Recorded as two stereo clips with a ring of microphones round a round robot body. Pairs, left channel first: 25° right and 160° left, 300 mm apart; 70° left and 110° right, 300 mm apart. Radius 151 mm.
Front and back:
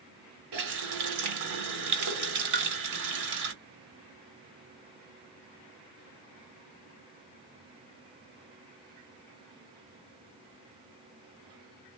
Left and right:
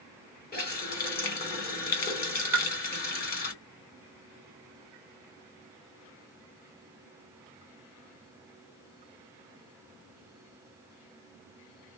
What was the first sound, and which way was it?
A running tap, 130° left.